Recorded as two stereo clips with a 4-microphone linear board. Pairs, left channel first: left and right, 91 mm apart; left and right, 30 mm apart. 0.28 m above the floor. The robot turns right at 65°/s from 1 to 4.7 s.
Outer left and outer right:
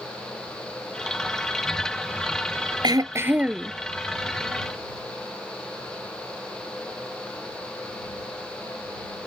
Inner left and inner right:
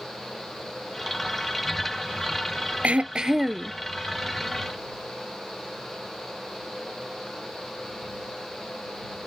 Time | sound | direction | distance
2.8 | throat clearing | 50° right | ?